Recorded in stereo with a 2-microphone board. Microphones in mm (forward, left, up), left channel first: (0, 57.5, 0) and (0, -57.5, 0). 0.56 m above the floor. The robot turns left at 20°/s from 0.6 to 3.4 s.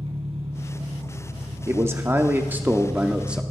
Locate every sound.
0.0 s an engine running: 65° right, 3 m; by 3.5 s 120° right, 3 m
1.7 s a man speaking: 130° right, 0.8 m; by 3.4 s 165° right, 0.8 m